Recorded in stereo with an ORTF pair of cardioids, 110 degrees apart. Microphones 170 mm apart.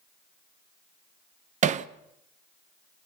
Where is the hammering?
45° right, 0.7 m.